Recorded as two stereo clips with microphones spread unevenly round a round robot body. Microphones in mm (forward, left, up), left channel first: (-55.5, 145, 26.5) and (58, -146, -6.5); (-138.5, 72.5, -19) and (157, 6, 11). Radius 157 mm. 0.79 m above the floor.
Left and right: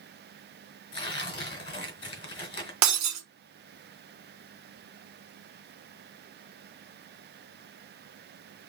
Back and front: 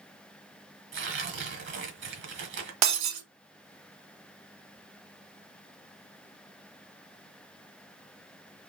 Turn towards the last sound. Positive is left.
turn(degrees=-25)